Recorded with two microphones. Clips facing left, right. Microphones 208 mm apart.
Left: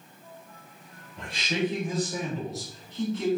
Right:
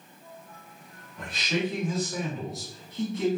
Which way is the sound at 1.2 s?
30° left (ahead or behind).